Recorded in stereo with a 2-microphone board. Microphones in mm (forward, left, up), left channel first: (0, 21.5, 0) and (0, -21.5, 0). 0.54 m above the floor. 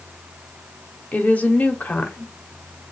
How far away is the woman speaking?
About 0.9 m.